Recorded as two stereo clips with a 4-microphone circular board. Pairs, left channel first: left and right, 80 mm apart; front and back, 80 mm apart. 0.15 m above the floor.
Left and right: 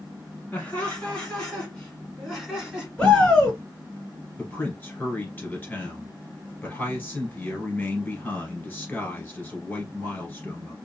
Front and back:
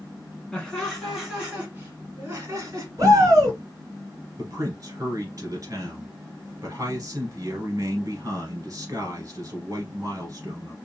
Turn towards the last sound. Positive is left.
turn(degrees=150)